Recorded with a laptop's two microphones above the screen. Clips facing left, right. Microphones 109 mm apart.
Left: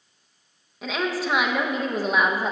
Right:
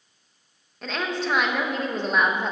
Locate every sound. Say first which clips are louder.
0.8 s a woman speaking: left 2 dB; 5° left (ahead or behind), 0.6 m